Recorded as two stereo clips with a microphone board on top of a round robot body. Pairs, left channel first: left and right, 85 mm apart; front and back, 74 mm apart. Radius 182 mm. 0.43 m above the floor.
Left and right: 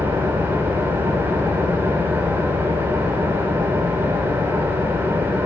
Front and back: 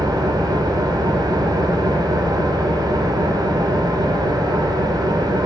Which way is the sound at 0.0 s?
155° right.